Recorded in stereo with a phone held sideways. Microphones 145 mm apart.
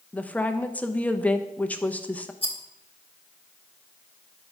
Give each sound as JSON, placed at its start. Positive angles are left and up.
{"t": 0.1, "sound": "a woman speaking", "side_deg": 10, "distance_m": 0.7}
{"t": 2.4, "sound": "a rattle", "side_deg": 35, "distance_m": 1.3}